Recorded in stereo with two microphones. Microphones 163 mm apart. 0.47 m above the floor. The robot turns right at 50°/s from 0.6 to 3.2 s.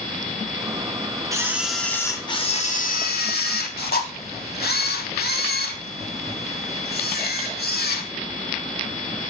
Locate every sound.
1.3 s a camera shutter: 20° right, 1.0 m; by 8.1 s 75° left, 1.0 m